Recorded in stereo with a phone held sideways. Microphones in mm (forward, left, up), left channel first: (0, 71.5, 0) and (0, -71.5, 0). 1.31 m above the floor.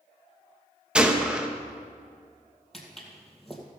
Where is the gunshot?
5° right (ahead or behind), 1.0 m.